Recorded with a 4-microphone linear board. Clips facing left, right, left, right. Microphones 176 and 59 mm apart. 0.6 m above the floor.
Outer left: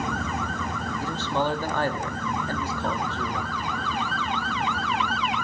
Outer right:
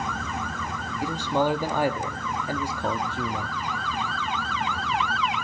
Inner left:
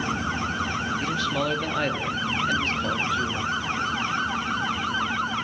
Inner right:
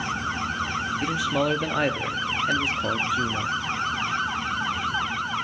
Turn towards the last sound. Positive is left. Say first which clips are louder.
# outer right 3 dB, inner right 4 dB
turn(degrees=-15)  # may be behind; listen again after turning